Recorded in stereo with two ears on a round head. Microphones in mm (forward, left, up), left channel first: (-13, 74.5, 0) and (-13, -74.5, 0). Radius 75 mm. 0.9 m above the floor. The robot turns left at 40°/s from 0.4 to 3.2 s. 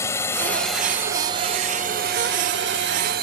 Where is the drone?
15° left (ahead or behind); by 3.2 s 70° right (ahead or behind).